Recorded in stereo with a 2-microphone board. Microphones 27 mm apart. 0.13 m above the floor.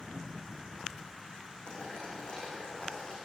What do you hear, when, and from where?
1.7 s boiling: 40° left (ahead or behind), 8.5 m